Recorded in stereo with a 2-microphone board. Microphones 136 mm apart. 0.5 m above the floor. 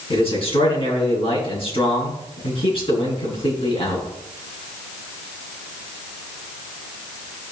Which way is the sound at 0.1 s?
40° left (ahead or behind).